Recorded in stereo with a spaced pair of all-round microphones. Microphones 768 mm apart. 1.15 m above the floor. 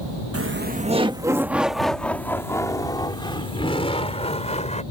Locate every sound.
0.3 s laughter: 20° right (ahead or behind); by 4.8 s 10° left (ahead or behind)